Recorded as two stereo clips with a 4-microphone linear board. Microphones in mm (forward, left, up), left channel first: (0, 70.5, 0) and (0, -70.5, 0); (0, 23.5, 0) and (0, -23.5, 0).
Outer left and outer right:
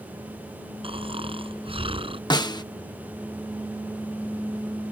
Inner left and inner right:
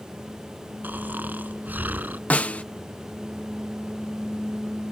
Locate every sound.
0.8 s snoring: 40° right (ahead or behind)
2.3 s a snare drum: 30° left (ahead or behind)